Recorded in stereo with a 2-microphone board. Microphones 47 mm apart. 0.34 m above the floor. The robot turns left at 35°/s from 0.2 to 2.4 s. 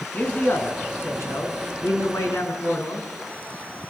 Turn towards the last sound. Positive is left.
turn(degrees=65)